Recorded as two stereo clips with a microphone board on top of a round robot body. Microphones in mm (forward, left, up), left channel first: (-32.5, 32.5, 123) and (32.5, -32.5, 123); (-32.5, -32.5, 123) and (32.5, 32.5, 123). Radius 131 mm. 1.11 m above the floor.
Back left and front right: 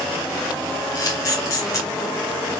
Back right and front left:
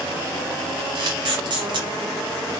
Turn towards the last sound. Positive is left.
turn(degrees=80)